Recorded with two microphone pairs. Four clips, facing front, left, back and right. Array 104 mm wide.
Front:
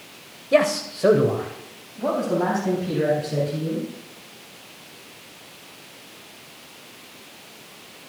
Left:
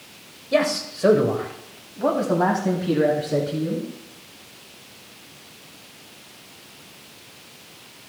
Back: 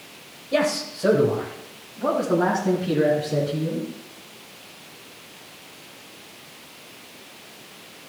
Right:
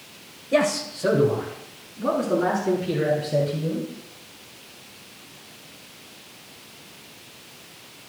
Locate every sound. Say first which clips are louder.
0.5 s a man speaking: even, front 4 dB; straight ahead, 1.8 m; by 3.9 s 105° left, 4.5 m